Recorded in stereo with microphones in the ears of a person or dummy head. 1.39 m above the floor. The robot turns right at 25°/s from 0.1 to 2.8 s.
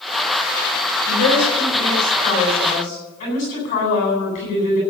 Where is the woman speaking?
90° left, 10 m; by 4.8 s 135° left, 10 m.